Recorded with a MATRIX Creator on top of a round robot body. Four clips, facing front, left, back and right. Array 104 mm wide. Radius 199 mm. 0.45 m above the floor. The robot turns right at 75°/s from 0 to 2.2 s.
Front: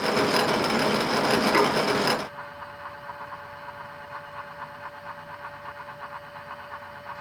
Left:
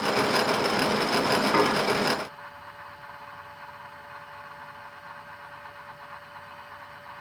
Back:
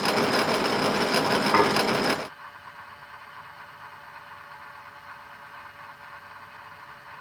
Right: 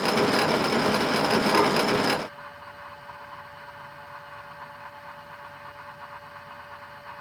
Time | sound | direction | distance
1.5 | dishes clattering | 160° left | 5 m